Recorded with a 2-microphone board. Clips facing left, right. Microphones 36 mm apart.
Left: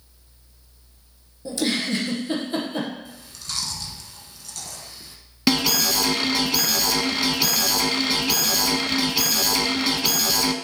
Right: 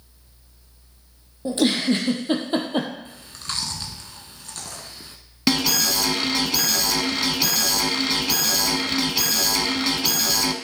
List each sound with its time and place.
1.4 s a giggle: 40° right (ahead or behind), 1.4 m
3.0 s chewing: 45° right (ahead or behind), 0.9 m
5.5 s an alarm: 5° left (ahead or behind), 0.7 m